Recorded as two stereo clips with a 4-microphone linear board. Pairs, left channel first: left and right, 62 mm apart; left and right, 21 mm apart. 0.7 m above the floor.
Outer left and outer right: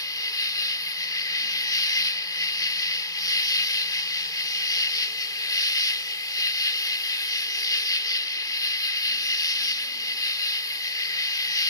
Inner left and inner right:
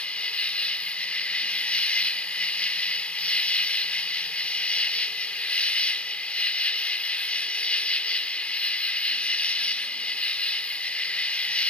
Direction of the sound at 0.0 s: 75° left (ahead or behind).